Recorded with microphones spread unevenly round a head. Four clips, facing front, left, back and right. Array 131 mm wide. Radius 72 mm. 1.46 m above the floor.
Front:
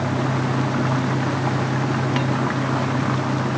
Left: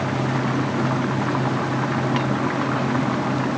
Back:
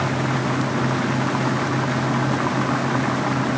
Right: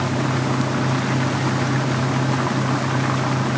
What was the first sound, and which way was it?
Only background noise.